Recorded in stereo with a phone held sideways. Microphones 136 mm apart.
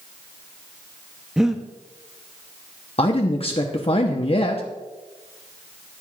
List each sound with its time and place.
1.4 s breathing: 5° right (ahead or behind), 0.7 m
3.0 s a man speaking: 45° left (ahead or behind), 0.8 m